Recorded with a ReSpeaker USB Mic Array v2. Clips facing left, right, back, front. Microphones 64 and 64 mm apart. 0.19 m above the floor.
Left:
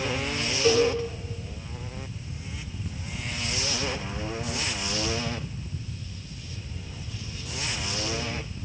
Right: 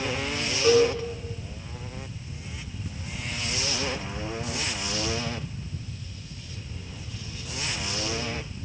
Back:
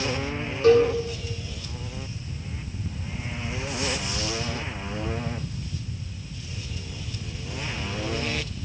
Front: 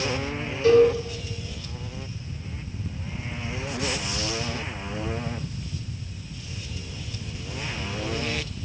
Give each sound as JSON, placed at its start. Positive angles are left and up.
{"t": 0.6, "sound": "a cowbell", "azimuth_deg": -165, "distance_m": 2.5}